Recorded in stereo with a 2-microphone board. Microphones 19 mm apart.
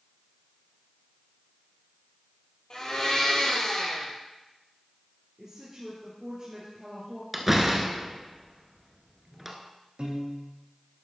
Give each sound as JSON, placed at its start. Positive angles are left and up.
{"t": 2.7, "sound": "a blender", "side_deg": 40, "distance_m": 3.0}
{"t": 5.4, "sound": "a woman speaking", "side_deg": -30, "distance_m": 2.5}
{"t": 7.3, "sound": "a door slam", "side_deg": -10, "distance_m": 1.4}
{"t": 10.0, "sound": "a piano", "side_deg": -60, "distance_m": 2.0}